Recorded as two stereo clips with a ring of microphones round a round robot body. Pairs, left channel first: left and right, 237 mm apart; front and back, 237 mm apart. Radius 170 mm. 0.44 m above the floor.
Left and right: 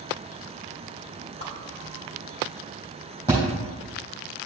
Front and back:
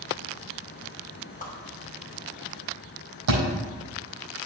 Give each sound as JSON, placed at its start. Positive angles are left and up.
{"t": 1.4, "sound": "a whoosh", "azimuth_deg": 55, "distance_m": 2.5}
{"t": 3.3, "sound": "a thud", "azimuth_deg": 170, "distance_m": 4.0}